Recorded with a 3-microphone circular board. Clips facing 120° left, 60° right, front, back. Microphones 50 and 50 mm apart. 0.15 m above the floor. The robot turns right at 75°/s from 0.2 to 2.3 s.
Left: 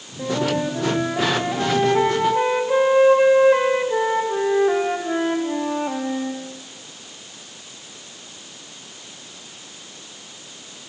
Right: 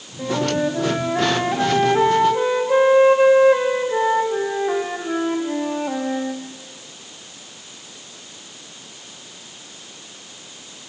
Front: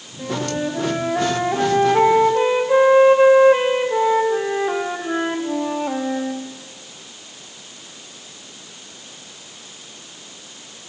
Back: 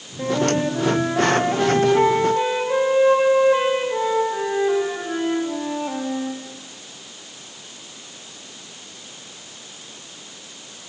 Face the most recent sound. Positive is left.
turn(degrees=55)